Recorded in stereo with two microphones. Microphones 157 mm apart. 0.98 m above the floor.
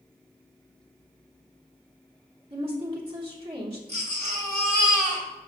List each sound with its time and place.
2.5 s a woman speaking: 35° right (ahead or behind), 3 m
3.9 s a baby crying: 40° right (ahead or behind), 3 m